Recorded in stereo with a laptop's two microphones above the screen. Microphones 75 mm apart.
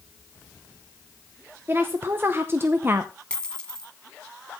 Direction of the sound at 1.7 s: 35° right (ahead or behind).